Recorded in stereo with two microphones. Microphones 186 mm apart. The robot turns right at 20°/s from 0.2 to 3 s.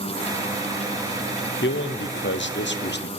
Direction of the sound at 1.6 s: 80° left.